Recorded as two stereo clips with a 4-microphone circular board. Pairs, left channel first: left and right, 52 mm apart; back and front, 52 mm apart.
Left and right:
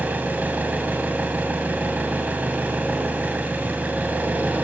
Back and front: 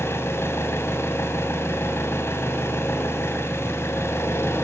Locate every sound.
0.0 s an engine running: 145° right, 3.5 m